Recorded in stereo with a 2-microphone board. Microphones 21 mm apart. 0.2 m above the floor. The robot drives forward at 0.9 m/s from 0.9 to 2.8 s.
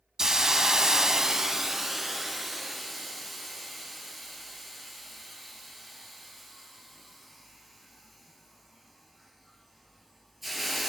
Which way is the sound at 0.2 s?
30° right (ahead or behind).